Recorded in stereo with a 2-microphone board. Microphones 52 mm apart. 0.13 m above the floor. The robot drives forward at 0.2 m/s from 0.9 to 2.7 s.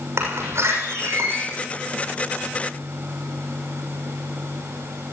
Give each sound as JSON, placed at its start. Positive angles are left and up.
{"t": 0.2, "sound": "a door slam", "side_deg": -60, "distance_m": 6.5}